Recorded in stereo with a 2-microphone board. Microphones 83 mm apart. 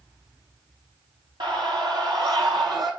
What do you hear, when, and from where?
1.4 s a scream: 70° right (ahead or behind), 3.5 m; by 2.9 s 60° right (ahead or behind), 4.5 m